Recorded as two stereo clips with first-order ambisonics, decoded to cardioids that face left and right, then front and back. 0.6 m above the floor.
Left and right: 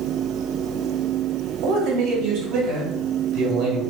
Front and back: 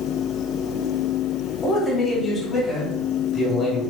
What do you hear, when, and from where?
1.6 s a man speaking: 70° right, 2.5 m